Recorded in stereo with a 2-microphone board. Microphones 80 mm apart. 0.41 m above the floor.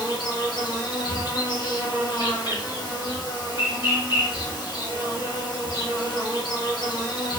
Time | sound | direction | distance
0.0 | an insect | 65° left (ahead or behind) | 0.9 m